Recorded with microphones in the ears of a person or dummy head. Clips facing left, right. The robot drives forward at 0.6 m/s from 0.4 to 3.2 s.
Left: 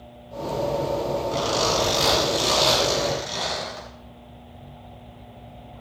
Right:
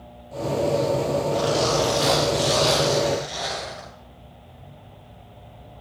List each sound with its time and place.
1.3 s a zipper: 80° left, 8 m; by 3.9 s 85° left, 8 m